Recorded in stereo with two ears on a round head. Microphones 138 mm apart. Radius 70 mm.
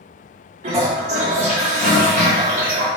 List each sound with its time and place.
0.6 s a toilet flushing: 50° right (ahead or behind), 3 m